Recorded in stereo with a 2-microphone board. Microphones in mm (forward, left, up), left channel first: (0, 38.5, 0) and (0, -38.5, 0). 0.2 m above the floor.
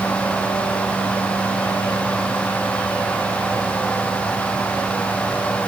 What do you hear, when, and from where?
Only background noise.